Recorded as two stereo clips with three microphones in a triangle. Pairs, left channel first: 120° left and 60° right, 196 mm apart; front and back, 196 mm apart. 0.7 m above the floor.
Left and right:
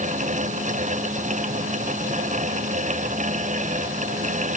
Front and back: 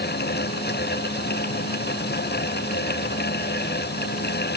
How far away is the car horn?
I don't hear a car horn.